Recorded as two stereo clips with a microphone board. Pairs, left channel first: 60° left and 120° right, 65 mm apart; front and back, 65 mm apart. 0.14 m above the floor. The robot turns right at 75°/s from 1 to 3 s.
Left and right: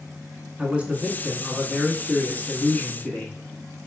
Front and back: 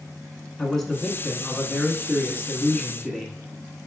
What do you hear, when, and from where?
0.6 s a man speaking: 75° right, 1.1 m; by 3.4 s 75° left, 1.1 m